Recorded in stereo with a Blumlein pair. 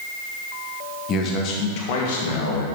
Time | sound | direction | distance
1.1 | a man speaking | 30° left | 1.9 m